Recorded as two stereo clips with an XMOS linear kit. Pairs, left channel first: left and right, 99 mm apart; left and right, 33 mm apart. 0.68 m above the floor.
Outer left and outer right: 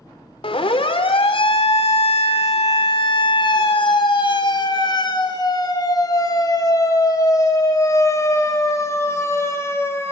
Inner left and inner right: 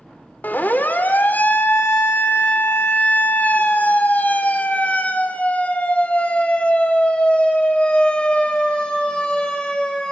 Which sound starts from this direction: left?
A siren, at 0.4 s.